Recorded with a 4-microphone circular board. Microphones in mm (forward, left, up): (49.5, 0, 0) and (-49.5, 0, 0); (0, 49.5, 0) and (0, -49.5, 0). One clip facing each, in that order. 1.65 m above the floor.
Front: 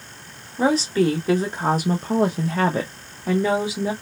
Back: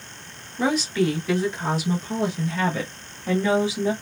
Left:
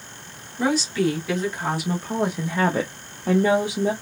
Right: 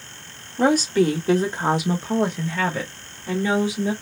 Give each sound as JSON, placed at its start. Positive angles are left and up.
{"t": 0.6, "sound": "a woman speaking", "azimuth_deg": -55, "distance_m": 1.0}